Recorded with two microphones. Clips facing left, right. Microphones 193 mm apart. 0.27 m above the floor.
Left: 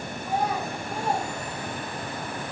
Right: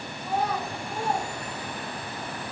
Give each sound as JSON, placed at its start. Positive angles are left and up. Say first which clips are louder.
{"t": 0.2, "sound": "a child speaking", "louder": "left 1 dB", "side_deg": 10, "distance_m": 1.5}